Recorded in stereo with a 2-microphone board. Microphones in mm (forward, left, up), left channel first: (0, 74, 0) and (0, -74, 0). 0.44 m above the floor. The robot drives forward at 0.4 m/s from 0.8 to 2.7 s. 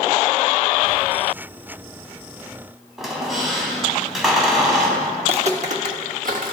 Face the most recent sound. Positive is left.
turn(degrees=-65)  # may be behind; listen again after turning